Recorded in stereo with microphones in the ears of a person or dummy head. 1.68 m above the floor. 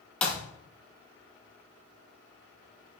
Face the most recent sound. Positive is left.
turn(degrees=5)  # may be behind; listen again after turning